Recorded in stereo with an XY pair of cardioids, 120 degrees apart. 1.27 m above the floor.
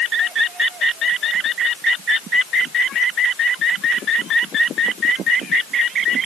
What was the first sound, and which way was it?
Only background noise.